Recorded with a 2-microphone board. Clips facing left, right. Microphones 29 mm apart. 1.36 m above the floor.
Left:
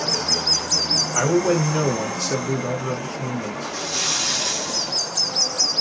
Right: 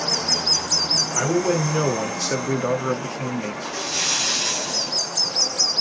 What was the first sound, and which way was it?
A man speaking, 10° left (ahead or behind).